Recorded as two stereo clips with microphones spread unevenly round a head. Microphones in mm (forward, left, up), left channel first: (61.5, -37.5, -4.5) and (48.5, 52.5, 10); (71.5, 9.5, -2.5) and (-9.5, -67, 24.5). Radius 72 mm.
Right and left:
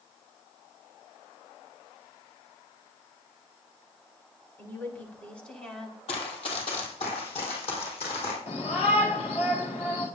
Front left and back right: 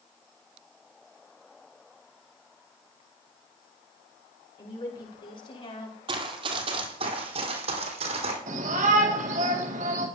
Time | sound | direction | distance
4.6 | a woman speaking | 10° right | 5.5 m
6.1 | running footsteps | 120° right | 3 m
8.5 | a shout | 135° right | 3.5 m